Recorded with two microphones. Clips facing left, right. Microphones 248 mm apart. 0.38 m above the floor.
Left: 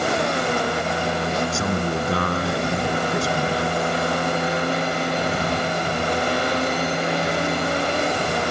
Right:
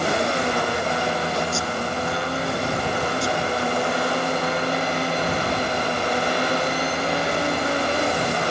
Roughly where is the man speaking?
Left.